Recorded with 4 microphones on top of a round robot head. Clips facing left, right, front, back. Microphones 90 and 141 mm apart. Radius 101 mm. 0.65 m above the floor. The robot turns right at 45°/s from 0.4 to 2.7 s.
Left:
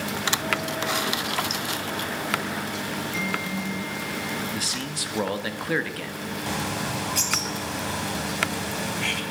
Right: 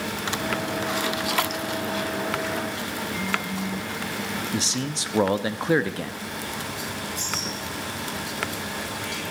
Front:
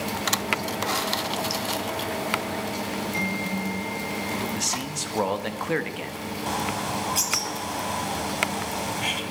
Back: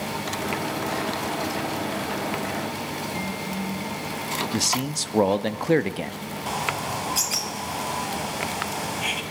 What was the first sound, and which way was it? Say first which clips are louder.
A man speaking: right 3 dB, back 4 dB; 140° right.